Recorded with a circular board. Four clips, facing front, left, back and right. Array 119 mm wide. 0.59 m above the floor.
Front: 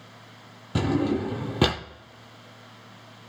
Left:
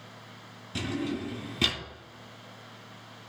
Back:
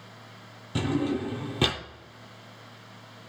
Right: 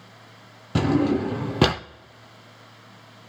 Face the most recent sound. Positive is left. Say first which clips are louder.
# right 12 dB, front 3 dB
turn(degrees=-70)